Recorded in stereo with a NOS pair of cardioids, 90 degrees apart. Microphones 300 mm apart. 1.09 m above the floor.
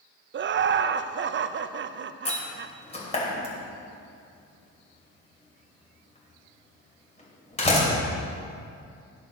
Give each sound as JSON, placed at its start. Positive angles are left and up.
{"t": 0.3, "sound": "laughter", "azimuth_deg": -40, "distance_m": 0.6}
{"t": 2.2, "sound": "a door slam", "azimuth_deg": 20, "distance_m": 3.0}